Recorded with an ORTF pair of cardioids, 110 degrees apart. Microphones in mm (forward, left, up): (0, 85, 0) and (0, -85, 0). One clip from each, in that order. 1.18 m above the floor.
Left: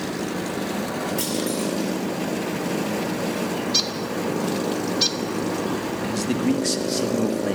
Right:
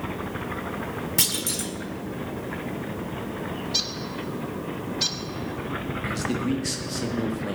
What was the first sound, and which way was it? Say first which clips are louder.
A clunk: left 1 dB; 50° right.